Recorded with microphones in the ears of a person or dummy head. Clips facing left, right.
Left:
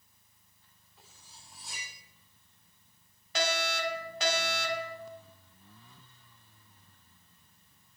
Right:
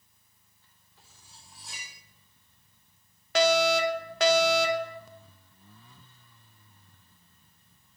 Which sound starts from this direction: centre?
Cutlery clinking, at 1.0 s.